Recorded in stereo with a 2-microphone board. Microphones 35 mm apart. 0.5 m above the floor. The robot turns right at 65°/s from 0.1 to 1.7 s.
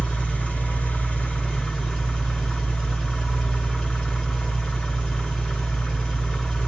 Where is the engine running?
50° left, 1.9 m; by 6.7 s 155° left, 1.9 m.